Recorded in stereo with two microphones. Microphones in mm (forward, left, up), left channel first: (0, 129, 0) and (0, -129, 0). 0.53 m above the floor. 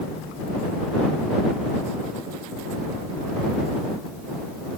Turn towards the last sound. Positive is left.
No sound to turn to.